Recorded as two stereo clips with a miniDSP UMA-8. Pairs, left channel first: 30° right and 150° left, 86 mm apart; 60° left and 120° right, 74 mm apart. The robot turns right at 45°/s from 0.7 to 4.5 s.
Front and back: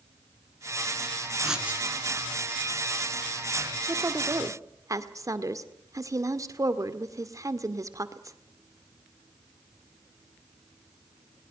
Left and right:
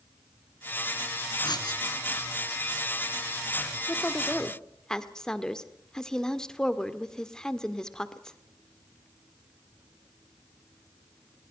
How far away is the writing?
About 3.5 m.